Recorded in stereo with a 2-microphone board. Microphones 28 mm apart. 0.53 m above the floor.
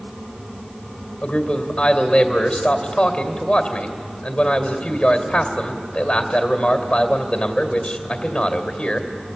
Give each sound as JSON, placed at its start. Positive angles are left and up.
{"t": 1.2, "sound": "a man speaking", "side_deg": 35, "distance_m": 2.5}